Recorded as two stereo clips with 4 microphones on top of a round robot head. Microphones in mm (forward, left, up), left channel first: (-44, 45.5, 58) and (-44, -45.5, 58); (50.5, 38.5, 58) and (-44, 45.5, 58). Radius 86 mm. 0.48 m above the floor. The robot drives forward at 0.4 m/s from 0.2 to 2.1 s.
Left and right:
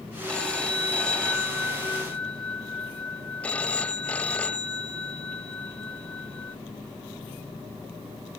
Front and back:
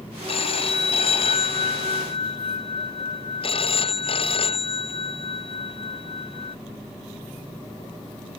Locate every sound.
0.3 s a phone ringing: 10° left